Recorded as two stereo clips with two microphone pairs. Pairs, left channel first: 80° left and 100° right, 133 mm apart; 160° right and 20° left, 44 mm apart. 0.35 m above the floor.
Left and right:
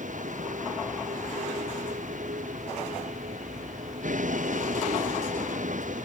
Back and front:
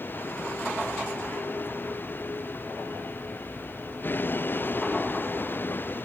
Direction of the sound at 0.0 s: 115° right.